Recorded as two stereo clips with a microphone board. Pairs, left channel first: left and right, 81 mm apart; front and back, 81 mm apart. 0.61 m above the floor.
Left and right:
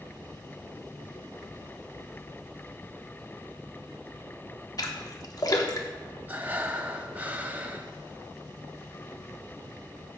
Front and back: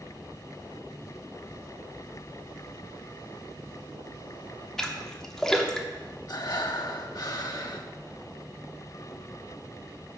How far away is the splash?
About 0.9 m.